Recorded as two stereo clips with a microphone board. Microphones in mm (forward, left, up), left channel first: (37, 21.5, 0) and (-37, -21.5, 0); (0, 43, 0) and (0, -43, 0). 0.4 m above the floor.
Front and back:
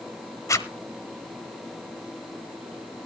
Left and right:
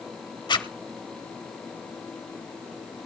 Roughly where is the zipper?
Left.